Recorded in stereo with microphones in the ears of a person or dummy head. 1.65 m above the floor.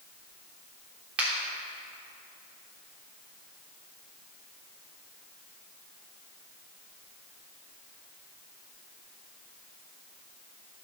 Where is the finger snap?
10° right (ahead or behind), 3.5 m.